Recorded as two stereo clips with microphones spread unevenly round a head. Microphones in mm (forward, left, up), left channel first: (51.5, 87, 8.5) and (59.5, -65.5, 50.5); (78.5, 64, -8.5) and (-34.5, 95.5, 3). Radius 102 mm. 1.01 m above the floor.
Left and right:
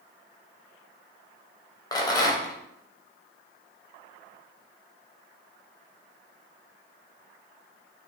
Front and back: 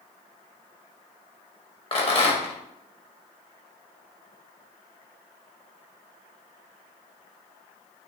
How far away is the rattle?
About 0.9 m.